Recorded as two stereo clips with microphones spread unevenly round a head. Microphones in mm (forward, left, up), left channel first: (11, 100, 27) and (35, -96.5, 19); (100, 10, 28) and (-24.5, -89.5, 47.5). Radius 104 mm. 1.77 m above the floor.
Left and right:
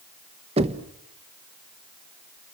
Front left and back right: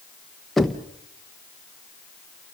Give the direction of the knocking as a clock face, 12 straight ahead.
2 o'clock.